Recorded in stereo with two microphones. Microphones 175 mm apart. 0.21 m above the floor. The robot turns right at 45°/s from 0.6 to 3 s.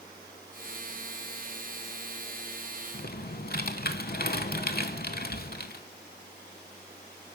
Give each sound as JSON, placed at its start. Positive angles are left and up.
{"t": 2.9, "sound": "typing on a keyboard", "side_deg": 60, "distance_m": 0.6}